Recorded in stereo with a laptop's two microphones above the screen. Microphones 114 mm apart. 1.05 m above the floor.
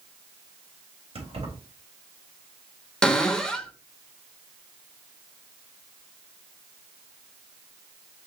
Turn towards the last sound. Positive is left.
turn(degrees=5)  # may be behind; listen again after turning